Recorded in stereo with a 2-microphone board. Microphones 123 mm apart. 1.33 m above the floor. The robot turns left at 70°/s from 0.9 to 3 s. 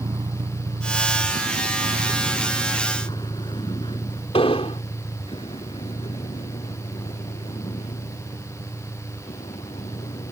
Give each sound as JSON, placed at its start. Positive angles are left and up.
{"t": 0.0, "sound": "a vehicle", "side_deg": -35}
{"t": 4.3, "sound": "an explosion", "side_deg": 55}